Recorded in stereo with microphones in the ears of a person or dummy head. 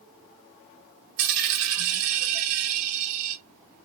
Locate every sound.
1.2 s a dropped coin: 45° right (ahead or behind), 1.2 m